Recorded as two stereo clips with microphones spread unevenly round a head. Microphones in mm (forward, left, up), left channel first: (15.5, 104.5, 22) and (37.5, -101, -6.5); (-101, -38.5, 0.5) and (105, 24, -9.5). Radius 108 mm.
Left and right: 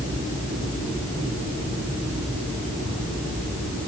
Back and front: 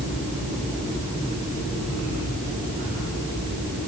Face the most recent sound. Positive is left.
No sound to turn to.